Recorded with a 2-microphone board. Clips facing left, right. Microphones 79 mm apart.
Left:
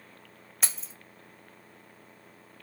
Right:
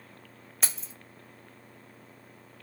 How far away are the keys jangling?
About 0.6 m.